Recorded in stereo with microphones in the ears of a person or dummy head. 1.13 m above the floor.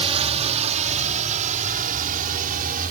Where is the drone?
30° right (ahead or behind); by 2.9 s 45° right (ahead or behind).